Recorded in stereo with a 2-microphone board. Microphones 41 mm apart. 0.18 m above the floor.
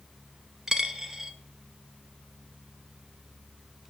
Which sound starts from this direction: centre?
A dropped coin, at 0.7 s.